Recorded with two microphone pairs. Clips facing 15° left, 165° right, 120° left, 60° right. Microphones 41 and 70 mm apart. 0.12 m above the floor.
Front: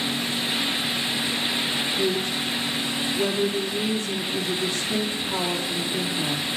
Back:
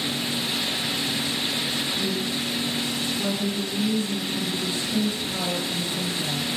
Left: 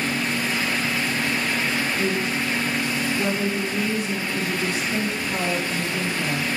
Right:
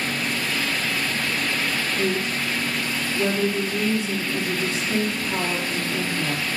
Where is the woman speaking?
Straight ahead, 4 m.